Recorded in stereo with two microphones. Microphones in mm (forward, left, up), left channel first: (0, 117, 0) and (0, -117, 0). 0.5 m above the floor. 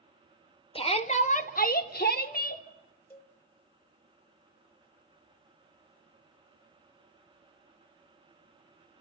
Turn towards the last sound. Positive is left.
turn(degrees=10)  # may be behind; listen again after turning